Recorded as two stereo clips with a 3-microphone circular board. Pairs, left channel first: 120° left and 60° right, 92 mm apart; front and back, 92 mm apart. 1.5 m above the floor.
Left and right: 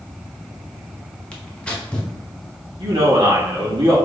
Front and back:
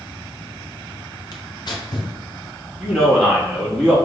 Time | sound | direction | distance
1.3 | tearing paper | 40° left | 0.8 m
2.8 | a man speaking | 90° right | 2 m